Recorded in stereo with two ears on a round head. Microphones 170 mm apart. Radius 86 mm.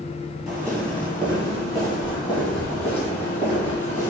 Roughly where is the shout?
No shout in this recording.